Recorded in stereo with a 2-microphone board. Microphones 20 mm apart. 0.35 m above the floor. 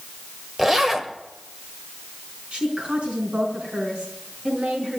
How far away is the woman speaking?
About 4 m.